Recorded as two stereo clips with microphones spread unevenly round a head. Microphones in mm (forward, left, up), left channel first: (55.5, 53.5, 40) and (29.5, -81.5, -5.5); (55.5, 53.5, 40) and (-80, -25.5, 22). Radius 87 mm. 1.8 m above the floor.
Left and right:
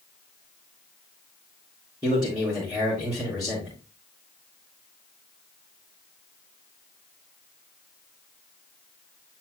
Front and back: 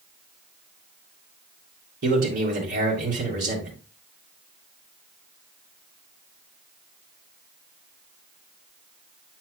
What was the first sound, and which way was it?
A man speaking, 175° right.